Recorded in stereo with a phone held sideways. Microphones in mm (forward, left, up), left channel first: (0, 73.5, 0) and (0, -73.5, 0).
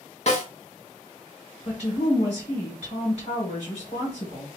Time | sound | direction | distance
0.3 | a snare drum | 50° left (ahead or behind) | 1.0 m
1.6 | a woman speaking | 50° left (ahead or behind) | 1.6 m